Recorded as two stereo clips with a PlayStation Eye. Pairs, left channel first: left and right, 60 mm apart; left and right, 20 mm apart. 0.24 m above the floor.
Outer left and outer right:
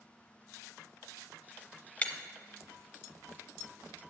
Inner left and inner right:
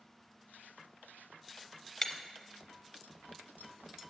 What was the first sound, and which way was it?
Breaking glass, 20° left (ahead or behind).